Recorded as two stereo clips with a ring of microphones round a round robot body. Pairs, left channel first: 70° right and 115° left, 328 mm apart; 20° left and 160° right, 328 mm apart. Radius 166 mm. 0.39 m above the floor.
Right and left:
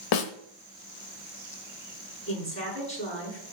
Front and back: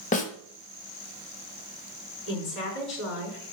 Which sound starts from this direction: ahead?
A woman speaking, at 2.3 s.